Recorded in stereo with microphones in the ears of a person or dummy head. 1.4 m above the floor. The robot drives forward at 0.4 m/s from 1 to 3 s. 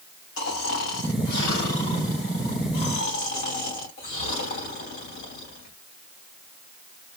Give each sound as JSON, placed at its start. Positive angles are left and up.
{"t": 0.4, "sound": "snoring", "side_deg": 65, "distance_m": 2.5}